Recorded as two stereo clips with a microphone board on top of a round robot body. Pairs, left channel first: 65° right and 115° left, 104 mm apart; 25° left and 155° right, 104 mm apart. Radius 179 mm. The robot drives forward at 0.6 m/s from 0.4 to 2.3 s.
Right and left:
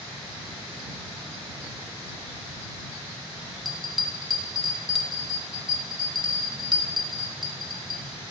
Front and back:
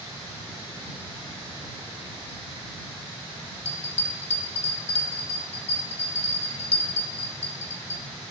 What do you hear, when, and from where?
3.6 s a bell: 25° left, 1.0 m